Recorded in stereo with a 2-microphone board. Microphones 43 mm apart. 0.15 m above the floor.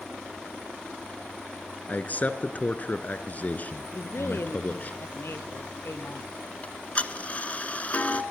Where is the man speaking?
40° left (ahead or behind), 1.7 m.